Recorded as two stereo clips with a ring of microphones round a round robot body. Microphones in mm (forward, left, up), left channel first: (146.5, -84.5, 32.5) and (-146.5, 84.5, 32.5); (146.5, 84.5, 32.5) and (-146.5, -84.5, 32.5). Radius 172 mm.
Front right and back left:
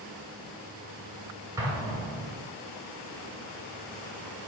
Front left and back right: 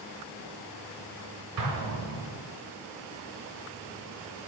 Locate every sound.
1.6 s an explosion: 130° right, 1.4 m